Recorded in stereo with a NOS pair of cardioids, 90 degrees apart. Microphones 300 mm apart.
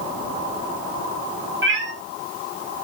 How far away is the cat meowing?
About 3.5 m.